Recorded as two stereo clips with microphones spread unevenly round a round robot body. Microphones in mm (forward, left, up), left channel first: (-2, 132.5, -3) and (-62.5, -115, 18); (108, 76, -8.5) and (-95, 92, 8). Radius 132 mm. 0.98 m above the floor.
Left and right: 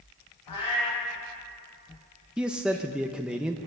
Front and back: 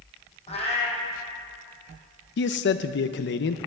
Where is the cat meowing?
55° left, 5 m.